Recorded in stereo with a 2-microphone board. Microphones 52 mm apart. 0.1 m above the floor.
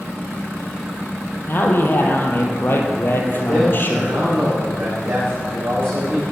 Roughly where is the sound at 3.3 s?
Right.